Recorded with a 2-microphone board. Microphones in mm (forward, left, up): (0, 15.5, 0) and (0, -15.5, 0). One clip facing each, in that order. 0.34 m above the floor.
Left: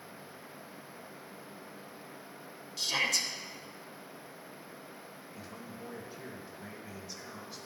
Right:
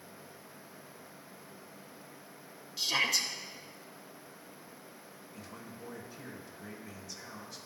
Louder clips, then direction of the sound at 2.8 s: Right 1 dB; 5° right (ahead or behind).